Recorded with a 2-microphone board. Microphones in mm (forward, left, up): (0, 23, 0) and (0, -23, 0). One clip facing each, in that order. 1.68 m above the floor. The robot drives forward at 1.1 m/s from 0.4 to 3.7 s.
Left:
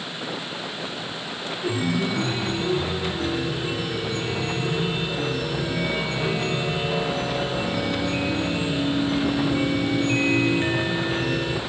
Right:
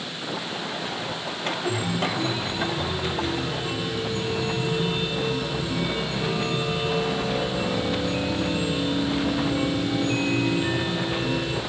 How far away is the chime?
About 6 m.